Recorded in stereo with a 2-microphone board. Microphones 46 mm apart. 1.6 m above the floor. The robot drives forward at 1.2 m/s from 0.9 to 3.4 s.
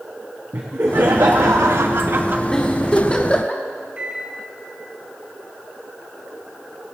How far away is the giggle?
About 3 m.